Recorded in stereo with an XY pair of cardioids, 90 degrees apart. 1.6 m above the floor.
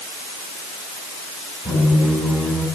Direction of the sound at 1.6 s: 5° right.